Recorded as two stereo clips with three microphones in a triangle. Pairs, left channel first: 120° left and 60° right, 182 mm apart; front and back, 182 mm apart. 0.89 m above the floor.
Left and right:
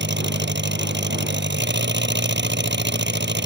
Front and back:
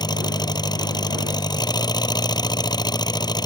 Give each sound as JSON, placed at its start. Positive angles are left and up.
{"t": 0.0, "sound": "an engine running", "azimuth_deg": -65}